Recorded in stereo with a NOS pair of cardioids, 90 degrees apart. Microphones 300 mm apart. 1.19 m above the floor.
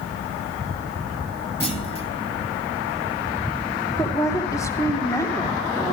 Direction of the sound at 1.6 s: 20° left.